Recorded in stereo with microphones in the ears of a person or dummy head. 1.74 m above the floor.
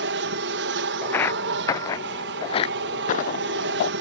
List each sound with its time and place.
0.0 s an aircraft: 60° right (ahead or behind)
1.0 s footsteps: 5° left (ahead or behind); by 3.9 s 50° left (ahead or behind)